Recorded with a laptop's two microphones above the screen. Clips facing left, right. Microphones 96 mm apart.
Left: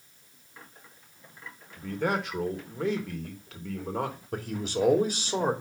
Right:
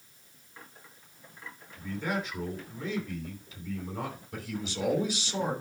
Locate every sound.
1.8 s a man speaking: 65° left (ahead or behind), 3 m
4.3 s a man speaking: 50° left (ahead or behind), 3 m